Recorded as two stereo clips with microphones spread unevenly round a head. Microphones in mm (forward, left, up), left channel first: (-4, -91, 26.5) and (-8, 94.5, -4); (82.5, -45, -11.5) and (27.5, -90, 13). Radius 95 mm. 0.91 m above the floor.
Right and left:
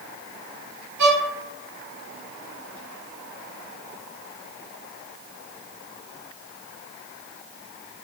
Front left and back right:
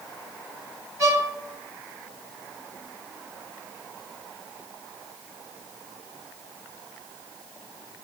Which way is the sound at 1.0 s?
115° left.